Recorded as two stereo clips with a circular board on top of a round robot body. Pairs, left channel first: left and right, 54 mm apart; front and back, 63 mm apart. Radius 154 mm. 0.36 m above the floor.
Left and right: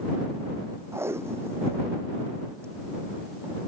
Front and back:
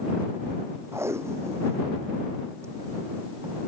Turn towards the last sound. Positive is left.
turn(degrees=-135)